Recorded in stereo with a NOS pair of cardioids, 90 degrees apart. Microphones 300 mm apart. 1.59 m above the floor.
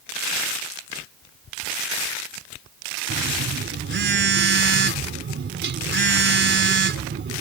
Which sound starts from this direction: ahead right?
A phone buzzing, at 3.1 s.